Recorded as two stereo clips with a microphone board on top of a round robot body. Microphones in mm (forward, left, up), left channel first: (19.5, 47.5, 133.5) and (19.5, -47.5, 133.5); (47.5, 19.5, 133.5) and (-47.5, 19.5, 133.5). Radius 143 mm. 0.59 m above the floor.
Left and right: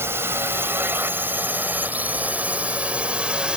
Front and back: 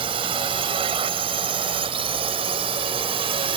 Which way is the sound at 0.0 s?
155° right.